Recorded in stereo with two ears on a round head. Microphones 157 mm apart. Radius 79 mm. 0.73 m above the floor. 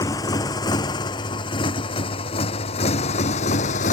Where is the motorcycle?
20° left (ahead or behind); by 3.9 s 45° left (ahead or behind).